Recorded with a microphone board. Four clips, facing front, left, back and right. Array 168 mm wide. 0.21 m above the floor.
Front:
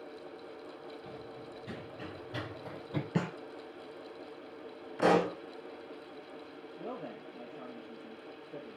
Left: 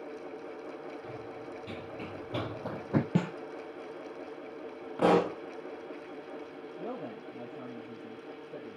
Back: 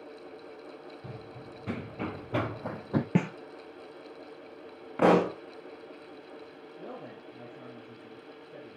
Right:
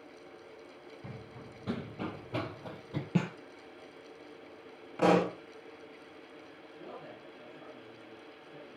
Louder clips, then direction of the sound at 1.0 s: Left 6 dB, back 1 dB; 125° right.